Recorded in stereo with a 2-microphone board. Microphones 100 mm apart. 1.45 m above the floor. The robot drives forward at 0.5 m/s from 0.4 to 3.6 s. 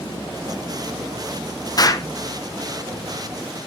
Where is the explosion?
40° left (ahead or behind), 0.6 m; by 2.1 s 35° left (ahead or behind), 0.8 m.